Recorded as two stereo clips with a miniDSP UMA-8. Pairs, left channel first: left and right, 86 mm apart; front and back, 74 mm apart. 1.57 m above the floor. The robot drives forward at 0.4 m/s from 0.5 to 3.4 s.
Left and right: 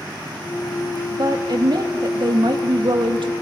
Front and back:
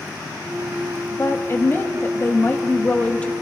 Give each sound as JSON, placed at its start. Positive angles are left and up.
{"t": 1.1, "sound": "a woman speaking", "azimuth_deg": -55, "distance_m": 2.5}